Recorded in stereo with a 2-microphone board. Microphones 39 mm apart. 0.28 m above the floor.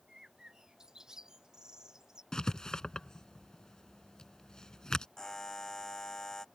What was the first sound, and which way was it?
A bird, 15° right (ahead or behind).